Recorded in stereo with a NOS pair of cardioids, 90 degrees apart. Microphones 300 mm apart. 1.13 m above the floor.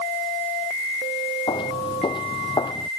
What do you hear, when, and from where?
1.5 s footsteps: 15° left